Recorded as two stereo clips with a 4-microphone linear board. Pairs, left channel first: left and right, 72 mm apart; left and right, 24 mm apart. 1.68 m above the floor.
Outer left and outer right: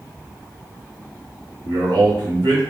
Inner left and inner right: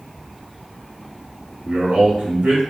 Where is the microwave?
No microwave in this recording.